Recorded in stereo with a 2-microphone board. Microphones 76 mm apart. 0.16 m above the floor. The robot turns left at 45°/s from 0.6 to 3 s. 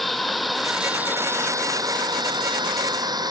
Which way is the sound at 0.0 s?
Centre (ahead or behind).